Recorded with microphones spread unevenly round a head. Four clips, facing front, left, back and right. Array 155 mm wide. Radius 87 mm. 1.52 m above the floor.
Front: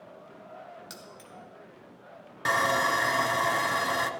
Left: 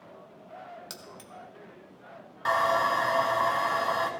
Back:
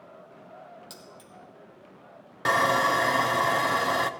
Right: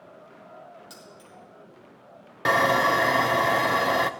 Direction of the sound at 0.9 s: 100° left.